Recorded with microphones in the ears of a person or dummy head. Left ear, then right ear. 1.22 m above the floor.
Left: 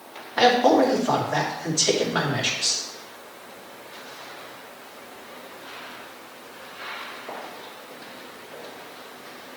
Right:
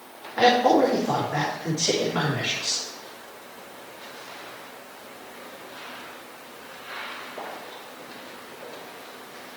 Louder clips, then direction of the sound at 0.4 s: Left 1 dB; 35° left (ahead or behind).